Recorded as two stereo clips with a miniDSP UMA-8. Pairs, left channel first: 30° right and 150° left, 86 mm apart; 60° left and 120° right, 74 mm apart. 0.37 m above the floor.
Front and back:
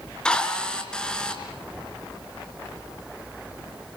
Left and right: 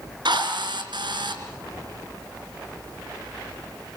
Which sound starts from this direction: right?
A drill, at 0.2 s.